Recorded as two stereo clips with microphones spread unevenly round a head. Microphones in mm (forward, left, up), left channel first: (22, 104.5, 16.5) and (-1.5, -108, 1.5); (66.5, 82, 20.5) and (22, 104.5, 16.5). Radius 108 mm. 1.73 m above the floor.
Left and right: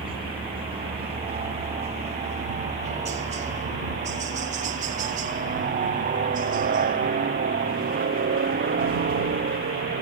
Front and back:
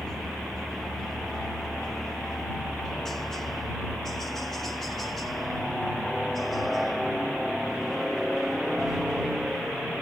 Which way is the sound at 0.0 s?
100° right.